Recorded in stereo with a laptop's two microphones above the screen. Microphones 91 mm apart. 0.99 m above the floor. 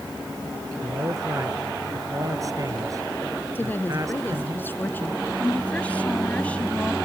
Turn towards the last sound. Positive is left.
turn(degrees=15)  # may be behind; listen again after turning